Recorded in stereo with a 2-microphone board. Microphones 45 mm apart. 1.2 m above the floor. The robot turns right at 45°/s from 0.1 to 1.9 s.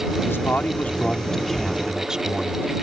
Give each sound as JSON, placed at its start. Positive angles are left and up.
{"t": 0.3, "sound": "a man speaking", "azimuth_deg": 120}